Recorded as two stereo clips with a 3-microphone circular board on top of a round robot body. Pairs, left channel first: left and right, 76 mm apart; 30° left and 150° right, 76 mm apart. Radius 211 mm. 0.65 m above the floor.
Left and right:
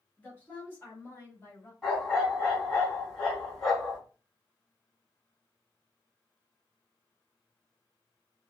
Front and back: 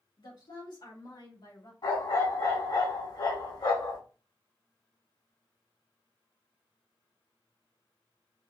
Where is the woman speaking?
20° left, 3 m; by 1.7 s 40° left, 2.5 m.